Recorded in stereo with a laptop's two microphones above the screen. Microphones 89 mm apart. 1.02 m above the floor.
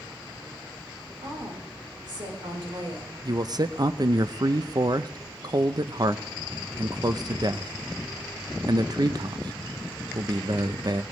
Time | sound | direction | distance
1.2 | a woman speaking | 50° right (ahead or behind) | 3.5 m
3.2 | a man speaking | 50° right (ahead or behind) | 0.5 m